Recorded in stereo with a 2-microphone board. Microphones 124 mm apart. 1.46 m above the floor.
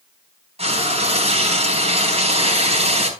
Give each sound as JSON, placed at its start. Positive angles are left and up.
{"t": 0.6, "sound": "frying", "side_deg": -55, "distance_m": 4.0}